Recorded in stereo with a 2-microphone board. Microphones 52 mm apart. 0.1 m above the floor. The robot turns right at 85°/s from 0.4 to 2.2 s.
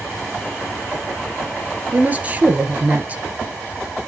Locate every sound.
1.9 s a woman speaking: 40° right (ahead or behind), 1.5 m; by 3.2 s 25° right (ahead or behind), 1.5 m